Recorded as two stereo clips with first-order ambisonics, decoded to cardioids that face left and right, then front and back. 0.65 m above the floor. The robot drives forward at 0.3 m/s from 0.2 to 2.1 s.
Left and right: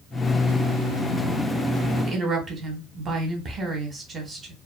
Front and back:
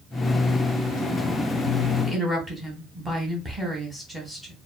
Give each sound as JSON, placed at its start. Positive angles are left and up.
{"t": 2.0, "sound": "a woman speaking", "azimuth_deg": -105, "distance_m": 0.7}